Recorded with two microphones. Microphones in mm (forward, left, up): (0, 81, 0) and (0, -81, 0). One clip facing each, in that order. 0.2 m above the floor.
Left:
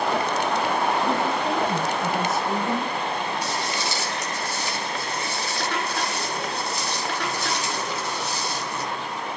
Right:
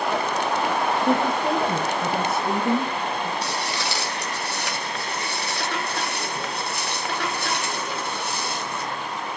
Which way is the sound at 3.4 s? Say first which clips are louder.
Even; 85° right.